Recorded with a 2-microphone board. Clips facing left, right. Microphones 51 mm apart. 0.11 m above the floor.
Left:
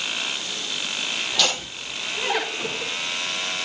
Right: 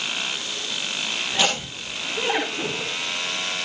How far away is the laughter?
About 10 m.